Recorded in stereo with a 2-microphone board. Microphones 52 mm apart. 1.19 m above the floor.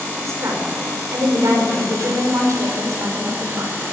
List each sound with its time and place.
0.2 s a woman speaking: 85° right, 5 m